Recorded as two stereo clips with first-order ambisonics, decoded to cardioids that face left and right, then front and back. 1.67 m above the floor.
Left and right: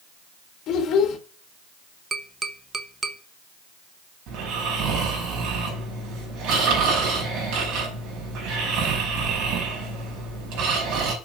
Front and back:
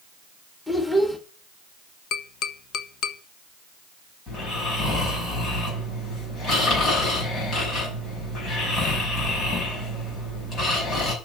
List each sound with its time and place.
0.7 s a child speaking: 80° left, 1.3 m
2.1 s tapping: 25° right, 0.9 m
4.3 s snoring: 60° right, 5.5 m